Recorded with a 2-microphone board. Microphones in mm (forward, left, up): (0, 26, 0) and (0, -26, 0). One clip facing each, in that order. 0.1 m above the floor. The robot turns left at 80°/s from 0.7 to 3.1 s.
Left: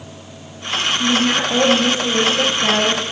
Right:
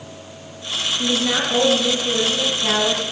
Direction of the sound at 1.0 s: 150° right.